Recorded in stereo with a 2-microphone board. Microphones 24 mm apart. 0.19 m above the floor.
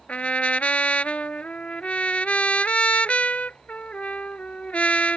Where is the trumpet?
65° left (ahead or behind).